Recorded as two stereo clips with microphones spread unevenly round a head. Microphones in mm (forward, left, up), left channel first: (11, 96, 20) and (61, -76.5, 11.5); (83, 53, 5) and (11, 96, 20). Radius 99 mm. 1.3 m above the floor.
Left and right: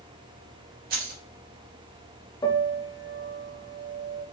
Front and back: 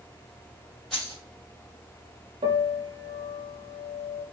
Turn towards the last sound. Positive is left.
turn(degrees=180)